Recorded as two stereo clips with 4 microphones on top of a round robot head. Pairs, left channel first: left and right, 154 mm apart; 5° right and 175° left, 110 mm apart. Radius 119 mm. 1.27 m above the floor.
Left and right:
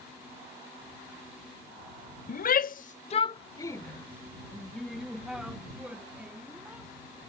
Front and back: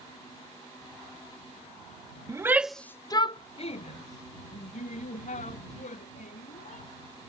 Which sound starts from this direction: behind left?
A shout, at 2.3 s.